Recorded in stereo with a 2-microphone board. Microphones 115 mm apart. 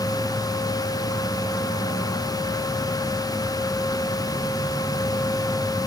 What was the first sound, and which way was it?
Only background noise.